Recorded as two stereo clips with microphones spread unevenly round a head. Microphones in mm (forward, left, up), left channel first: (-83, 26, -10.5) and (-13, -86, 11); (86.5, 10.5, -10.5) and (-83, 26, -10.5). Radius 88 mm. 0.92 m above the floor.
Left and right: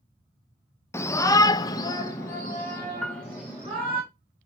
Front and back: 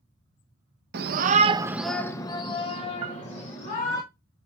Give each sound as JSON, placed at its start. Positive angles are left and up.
{"t": 0.9, "sound": "a shout", "azimuth_deg": -175, "distance_m": 0.7}
{"t": 3.0, "sound": "a piano", "azimuth_deg": -140, "distance_m": 0.8}